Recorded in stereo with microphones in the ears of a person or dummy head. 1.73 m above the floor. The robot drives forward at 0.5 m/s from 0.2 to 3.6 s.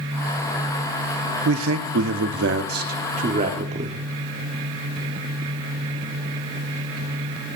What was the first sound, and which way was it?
A man speaking, 75° right (ahead or behind).